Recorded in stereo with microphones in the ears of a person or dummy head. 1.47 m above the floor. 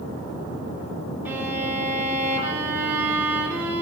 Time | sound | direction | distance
1.2 | a violin | 10° right (ahead or behind) | 4.5 m